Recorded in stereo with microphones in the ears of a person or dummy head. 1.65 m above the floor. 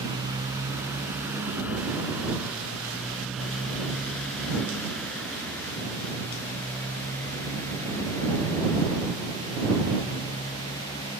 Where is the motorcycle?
15° right (ahead or behind); by 11.2 s 25° left (ahead or behind).